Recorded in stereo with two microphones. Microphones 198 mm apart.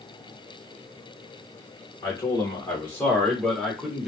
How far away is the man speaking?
About 1.1 m.